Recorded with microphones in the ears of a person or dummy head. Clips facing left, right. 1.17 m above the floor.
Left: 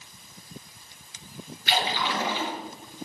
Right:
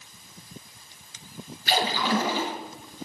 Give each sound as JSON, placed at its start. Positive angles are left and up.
{"t": 1.7, "sound": "a splash", "side_deg": -40, "distance_m": 3.5}